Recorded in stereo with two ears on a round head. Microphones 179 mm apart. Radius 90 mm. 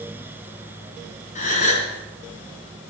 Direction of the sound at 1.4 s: 40° left (ahead or behind).